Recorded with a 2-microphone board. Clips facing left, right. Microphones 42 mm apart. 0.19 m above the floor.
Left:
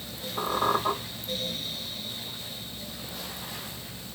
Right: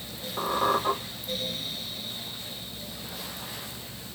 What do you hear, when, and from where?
0.4 s a squeak: 30° right (ahead or behind), 1.4 m